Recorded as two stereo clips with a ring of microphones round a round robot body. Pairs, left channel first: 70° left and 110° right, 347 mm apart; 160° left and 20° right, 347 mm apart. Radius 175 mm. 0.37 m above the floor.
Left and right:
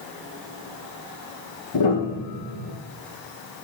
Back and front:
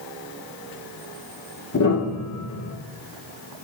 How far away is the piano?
About 4 m.